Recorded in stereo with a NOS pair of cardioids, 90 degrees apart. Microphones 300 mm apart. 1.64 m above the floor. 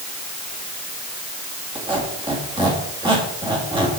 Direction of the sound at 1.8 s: 15° right.